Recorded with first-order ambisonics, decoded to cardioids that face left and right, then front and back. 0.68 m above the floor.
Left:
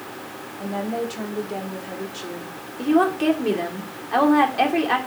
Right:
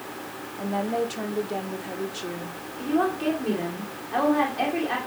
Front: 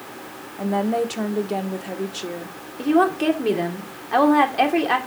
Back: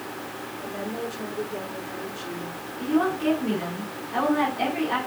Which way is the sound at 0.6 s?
5° right.